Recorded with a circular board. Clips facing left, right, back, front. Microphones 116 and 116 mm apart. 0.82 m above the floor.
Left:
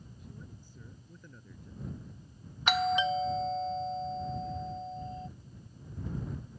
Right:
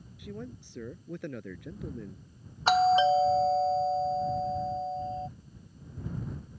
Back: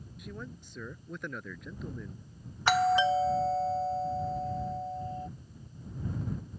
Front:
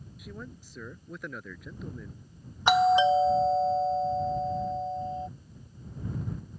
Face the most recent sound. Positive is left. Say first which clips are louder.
# right 7 dB, front 4 dB
turn(degrees=-60)